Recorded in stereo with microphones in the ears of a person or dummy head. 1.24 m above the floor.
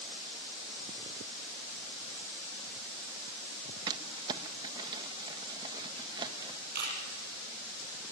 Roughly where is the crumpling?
Right.